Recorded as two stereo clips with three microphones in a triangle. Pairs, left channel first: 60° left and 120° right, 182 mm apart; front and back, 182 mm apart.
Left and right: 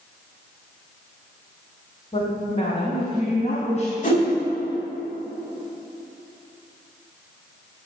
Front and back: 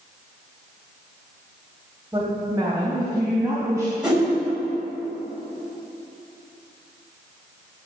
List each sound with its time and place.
2.1 s a woman speaking: 110° left, 2.5 m; by 3.9 s 100° left, 3.5 m
4.0 s a whoosh: 95° left, 3.5 m